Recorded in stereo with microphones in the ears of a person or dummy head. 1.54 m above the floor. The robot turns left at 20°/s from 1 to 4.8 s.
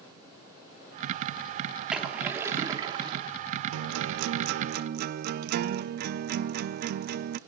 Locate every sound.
1.9 s a splash: centre (ahead or behind), 3 m; by 3.3 s 30° right (ahead or behind), 3 m
3.7 s a guitar: 75° right (ahead or behind), 0.7 m; by 7.4 s 55° right (ahead or behind), 0.7 m